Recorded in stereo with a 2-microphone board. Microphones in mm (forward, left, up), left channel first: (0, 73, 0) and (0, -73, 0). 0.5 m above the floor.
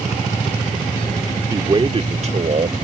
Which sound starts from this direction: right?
A man speaking, at 1.5 s.